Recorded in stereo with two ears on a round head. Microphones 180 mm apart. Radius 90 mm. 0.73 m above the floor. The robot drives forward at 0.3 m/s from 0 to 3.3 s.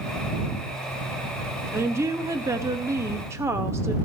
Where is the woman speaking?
10° right (ahead or behind), 0.6 m; by 4.0 s 15° right (ahead or behind), 0.5 m.